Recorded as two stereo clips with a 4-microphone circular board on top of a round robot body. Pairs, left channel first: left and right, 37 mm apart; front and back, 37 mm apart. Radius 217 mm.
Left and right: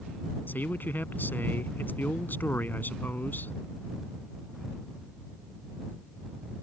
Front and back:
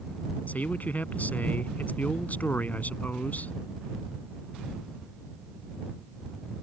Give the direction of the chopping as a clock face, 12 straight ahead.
I don't hear chopping.